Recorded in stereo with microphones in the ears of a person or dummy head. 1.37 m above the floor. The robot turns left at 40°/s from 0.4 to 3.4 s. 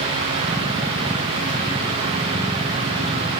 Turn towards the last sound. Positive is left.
No sound to turn to.